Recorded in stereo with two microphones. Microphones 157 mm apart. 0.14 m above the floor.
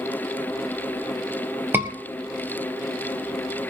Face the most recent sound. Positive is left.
turn(degrees=-15)  # may be behind; listen again after turning